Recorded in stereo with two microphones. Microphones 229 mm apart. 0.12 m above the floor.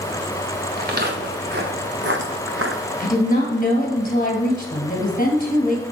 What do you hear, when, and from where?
0.8 s footsteps: 45° right (ahead or behind), 2 m; by 2.8 s 70° right (ahead or behind), 1.2 m
3.0 s a woman speaking: 40° left (ahead or behind), 2 m